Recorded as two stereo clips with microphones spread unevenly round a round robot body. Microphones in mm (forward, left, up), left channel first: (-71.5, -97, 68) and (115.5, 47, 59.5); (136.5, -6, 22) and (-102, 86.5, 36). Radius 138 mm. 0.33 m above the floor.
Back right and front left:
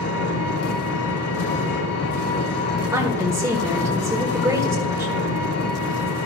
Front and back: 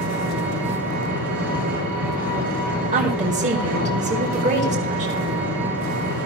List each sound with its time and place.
0.0 s an engine running: 115° right, 4.5 m
2.9 s a woman speaking: 110° left, 1.5 m